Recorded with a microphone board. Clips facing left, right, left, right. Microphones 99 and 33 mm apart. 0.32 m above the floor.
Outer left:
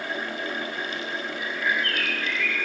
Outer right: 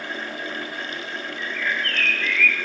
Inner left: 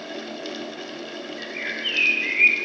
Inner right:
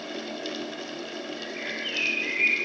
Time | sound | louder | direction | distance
1.4 | a bird | even, inner left 6 dB | 30° left (ahead or behind) | 3.5 m